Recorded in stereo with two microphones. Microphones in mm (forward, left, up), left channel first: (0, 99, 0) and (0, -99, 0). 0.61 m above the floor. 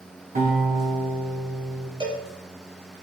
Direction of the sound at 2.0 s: 25° right (ahead or behind).